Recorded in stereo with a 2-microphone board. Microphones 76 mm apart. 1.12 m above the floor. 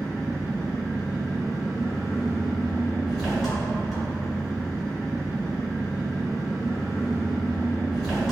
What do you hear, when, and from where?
0.0 s an engine running: centre (ahead or behind), 1.7 m